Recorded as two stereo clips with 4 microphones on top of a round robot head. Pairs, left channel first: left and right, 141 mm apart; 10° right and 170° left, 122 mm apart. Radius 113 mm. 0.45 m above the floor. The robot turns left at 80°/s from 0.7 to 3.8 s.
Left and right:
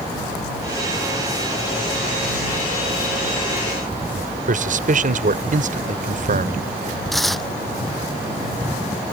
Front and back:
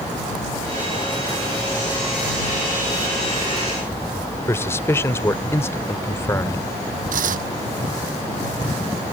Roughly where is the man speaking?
Right.